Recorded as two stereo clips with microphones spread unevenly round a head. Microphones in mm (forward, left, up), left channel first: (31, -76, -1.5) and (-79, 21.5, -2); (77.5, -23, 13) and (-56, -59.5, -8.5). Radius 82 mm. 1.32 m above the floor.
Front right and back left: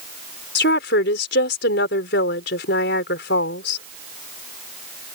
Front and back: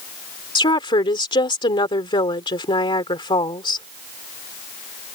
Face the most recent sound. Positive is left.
turn(degrees=-40)